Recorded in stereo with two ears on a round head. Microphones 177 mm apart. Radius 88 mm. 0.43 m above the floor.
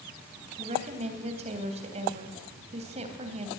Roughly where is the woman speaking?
Right.